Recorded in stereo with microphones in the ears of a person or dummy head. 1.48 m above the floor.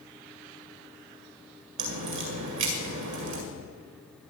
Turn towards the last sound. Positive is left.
turn(degrees=-70)  # may be behind; listen again after turning